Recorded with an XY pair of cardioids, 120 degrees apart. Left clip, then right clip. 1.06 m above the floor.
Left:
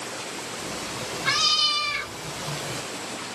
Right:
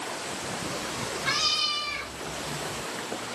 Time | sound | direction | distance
0.6 | a cat meowing | 10° left | 1.9 m